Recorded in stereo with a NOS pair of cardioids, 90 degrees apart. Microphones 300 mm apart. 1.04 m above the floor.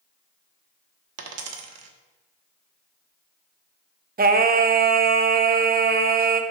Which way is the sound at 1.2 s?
55° right.